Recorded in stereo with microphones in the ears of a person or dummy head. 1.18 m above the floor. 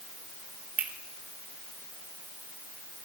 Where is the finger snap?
5° right (ahead or behind), 3.5 m.